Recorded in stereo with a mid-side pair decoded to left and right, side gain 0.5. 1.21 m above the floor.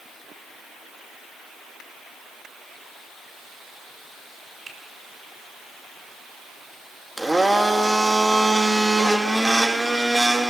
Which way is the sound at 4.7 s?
40° right.